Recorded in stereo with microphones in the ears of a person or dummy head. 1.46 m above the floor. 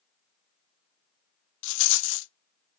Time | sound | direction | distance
1.6 | a rattle | 70° left (ahead or behind) | 0.6 m